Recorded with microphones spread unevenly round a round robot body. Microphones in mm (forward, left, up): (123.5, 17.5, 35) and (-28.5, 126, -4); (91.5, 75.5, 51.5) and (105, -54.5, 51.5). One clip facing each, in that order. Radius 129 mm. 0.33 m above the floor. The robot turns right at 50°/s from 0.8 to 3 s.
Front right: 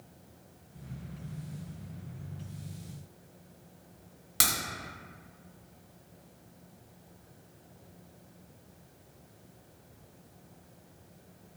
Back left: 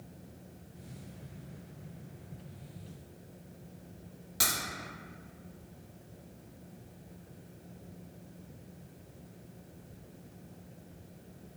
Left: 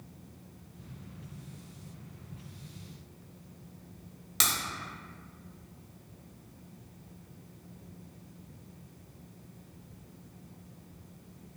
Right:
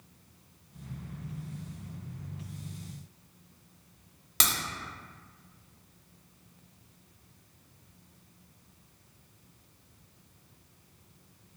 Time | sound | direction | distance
4.4 | a crack | 65° right | 1.4 m